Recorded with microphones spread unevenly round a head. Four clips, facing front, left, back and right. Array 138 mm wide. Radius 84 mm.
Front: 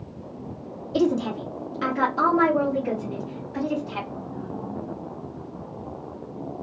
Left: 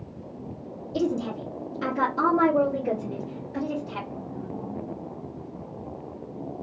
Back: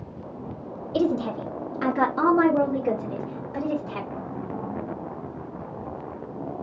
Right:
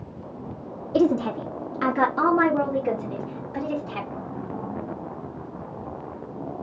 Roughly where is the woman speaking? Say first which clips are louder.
Right 6 dB, front 1 dB; right.